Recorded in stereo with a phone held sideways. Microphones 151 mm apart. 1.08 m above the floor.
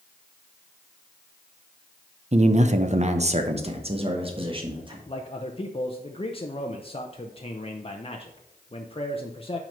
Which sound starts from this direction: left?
A man speaking, at 5.1 s.